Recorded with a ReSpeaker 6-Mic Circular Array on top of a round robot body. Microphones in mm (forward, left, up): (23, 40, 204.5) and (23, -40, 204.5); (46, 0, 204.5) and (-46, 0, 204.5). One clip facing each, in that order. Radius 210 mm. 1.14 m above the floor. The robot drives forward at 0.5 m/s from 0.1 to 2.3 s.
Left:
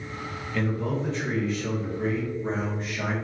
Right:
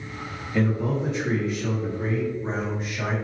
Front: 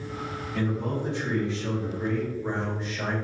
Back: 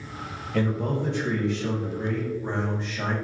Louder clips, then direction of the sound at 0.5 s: Right 4 dB, back 3 dB; 165° right.